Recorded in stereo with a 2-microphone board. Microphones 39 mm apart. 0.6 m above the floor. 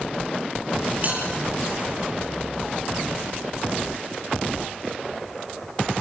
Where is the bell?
50° right (ahead or behind), 9.5 m.